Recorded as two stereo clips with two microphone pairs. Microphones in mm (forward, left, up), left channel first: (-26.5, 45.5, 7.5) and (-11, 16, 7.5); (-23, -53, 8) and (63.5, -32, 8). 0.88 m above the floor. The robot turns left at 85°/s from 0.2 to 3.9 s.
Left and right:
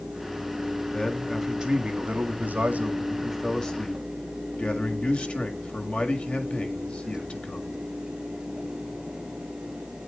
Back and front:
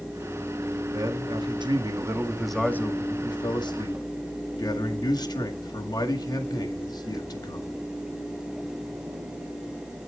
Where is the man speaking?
55° left, 1.8 m; by 7.7 s 165° left, 1.8 m.